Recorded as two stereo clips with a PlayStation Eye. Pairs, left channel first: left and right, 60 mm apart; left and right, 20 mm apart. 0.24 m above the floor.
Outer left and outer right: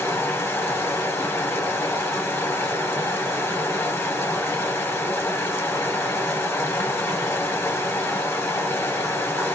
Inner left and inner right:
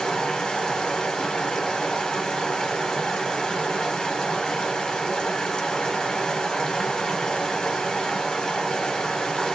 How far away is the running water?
About 1.3 m.